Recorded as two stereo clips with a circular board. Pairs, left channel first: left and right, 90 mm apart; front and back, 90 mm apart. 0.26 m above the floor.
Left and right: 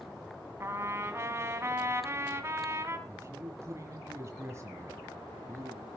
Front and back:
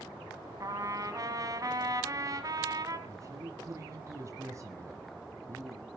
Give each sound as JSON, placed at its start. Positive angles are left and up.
{"t": 0.6, "sound": "a trumpet", "azimuth_deg": -145, "distance_m": 1.9}
{"t": 3.1, "sound": "a man speaking", "azimuth_deg": -140, "distance_m": 1.5}